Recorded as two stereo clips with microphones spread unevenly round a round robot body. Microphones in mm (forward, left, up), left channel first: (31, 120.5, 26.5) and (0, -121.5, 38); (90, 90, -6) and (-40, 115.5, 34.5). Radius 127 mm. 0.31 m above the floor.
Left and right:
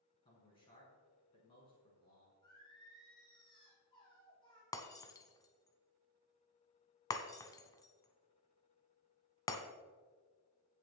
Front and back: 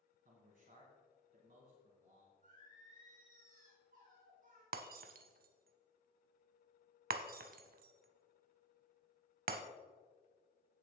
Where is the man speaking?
150° left, 4.5 m.